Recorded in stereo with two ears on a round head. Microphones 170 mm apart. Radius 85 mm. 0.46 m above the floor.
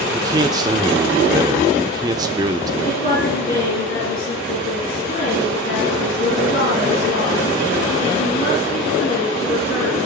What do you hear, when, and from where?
0.1 s a man speaking: 20° right (ahead or behind), 0.8 m
2.8 s a woman speaking: 50° left (ahead or behind), 5 m